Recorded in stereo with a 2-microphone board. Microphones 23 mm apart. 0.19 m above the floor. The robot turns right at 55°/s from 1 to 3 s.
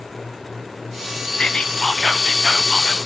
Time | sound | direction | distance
1.4 | whispering | 80° left | 1.3 m